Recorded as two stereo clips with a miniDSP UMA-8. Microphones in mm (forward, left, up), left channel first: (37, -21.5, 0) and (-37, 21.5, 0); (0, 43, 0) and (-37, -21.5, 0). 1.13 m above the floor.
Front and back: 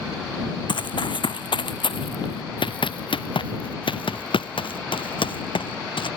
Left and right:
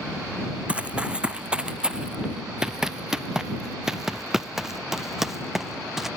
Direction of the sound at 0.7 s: 45° right.